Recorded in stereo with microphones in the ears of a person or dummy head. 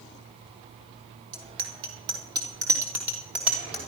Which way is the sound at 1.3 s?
35° right (ahead or behind).